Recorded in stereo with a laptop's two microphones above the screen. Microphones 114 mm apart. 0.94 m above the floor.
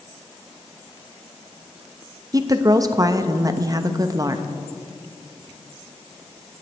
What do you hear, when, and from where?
2.3 s a woman speaking: 30° right (ahead or behind), 0.8 m